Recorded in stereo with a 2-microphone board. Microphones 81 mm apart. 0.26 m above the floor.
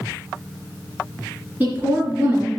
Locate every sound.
1.6 s a woman speaking: 25° right (ahead or behind), 3 m